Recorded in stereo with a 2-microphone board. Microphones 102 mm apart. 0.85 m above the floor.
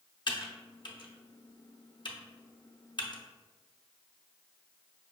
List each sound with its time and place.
0.3 s typing on a keyboard: 55° left (ahead or behind), 0.5 m